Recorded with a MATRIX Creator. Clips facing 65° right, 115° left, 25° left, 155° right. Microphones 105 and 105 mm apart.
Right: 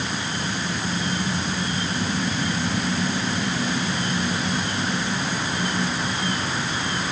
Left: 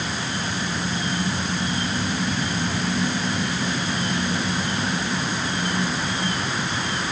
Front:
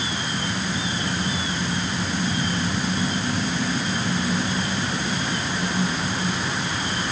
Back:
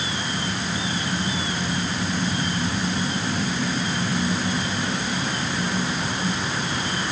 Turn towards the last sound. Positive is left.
No sound to turn to.